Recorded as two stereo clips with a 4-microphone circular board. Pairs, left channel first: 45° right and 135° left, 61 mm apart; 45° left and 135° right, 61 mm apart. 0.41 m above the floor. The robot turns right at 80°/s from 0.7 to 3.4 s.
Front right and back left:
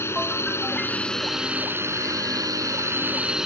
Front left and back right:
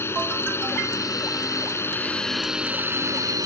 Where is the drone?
Straight ahead; by 3.5 s 145° right.